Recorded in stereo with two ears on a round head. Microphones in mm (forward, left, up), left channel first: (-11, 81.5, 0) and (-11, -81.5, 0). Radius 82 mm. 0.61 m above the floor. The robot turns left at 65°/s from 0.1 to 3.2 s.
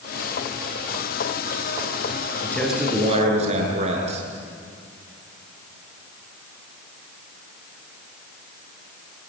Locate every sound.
2.4 s a man speaking: 15° left, 7.5 m; by 4.3 s 35° right, 7.5 m